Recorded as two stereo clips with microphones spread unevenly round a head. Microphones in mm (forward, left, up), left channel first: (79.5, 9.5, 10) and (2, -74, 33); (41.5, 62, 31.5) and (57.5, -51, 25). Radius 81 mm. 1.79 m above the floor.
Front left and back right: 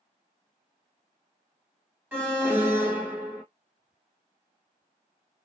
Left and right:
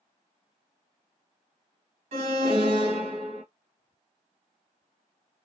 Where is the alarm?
65° right, 2.0 m.